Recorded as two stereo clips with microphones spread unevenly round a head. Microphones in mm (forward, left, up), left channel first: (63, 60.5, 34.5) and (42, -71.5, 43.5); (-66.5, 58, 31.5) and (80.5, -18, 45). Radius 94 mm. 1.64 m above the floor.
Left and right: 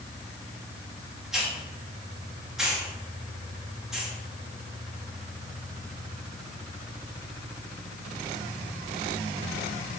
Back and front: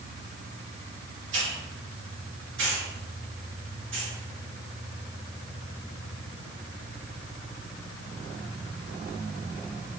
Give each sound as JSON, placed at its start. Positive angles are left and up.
{"t": 1.3, "sound": "a hiss", "azimuth_deg": -15, "distance_m": 3.5}